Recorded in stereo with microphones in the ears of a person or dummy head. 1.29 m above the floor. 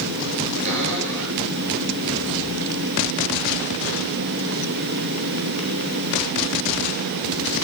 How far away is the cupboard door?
About 8.5 m.